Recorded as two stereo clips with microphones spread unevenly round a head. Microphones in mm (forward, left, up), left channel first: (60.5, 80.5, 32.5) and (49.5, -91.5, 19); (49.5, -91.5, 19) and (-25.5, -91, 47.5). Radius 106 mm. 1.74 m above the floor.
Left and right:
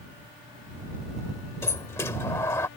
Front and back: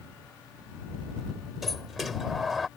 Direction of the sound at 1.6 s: 140° left.